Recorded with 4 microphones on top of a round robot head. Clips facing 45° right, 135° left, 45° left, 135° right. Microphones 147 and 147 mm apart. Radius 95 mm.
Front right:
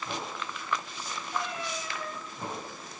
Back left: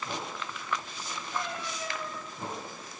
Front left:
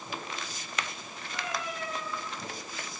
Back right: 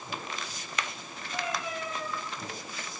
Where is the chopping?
No chopping in this recording.